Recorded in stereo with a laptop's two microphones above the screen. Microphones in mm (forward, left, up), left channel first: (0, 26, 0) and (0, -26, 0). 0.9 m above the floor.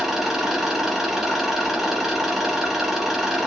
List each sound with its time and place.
0.0 s an engine running: 5° right (ahead or behind), 1.5 m